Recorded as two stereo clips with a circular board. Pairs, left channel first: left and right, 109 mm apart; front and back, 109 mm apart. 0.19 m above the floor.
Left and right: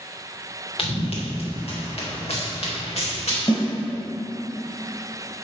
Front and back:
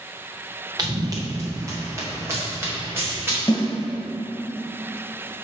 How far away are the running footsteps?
About 1.6 m.